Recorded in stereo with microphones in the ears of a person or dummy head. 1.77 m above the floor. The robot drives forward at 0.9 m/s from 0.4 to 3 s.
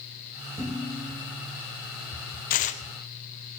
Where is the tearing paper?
40° left (ahead or behind), 0.8 m; by 2.8 s 30° left (ahead or behind), 1.1 m.